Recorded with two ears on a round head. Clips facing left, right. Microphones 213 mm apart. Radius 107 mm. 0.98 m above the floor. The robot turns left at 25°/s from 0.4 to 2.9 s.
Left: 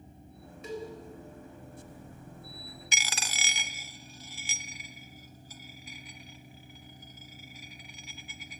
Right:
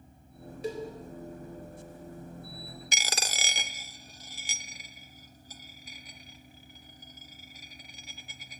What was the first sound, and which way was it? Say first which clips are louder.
A cowbell: right 3 dB; 30° right (ahead or behind).